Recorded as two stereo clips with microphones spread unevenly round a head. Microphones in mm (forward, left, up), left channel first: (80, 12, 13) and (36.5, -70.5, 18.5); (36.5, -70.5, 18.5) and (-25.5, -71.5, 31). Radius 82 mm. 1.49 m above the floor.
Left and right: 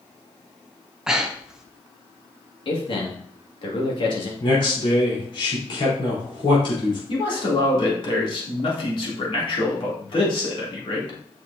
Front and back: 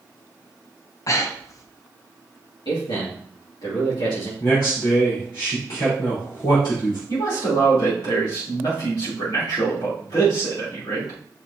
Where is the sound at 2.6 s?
35° left, 2.5 m.